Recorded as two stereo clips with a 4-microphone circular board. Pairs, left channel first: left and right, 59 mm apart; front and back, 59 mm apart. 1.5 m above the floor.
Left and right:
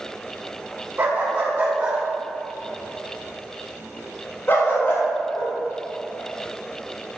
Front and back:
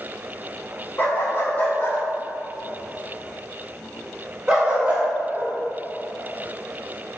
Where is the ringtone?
No ringtone in this recording.